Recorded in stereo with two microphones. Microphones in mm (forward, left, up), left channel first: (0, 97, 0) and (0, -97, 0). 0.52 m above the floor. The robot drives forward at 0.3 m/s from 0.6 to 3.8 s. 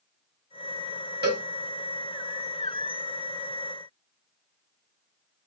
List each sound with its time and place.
1.2 s a cowbell: 60° right (ahead or behind), 1.7 m